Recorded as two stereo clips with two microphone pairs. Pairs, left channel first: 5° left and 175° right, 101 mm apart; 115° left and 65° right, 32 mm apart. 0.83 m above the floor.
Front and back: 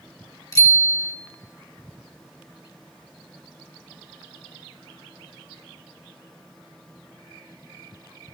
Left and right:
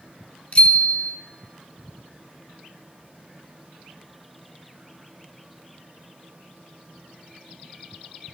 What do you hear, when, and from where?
0.5 s a bicycle bell: 60° left, 3 m